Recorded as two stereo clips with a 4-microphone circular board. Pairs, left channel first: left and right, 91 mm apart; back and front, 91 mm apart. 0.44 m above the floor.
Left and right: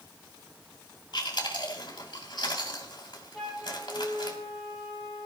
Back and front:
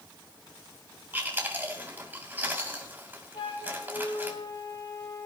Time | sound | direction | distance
1.1 | chewing | 65° left | 3 m
3.3 | a flute | 175° left | 7 m